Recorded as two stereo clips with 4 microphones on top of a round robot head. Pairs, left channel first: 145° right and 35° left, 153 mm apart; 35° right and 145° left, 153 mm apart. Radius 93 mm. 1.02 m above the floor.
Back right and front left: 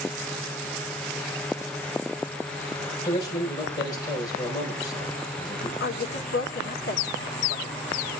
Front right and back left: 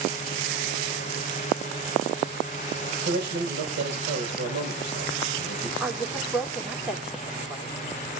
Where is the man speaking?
150° left, 5 m.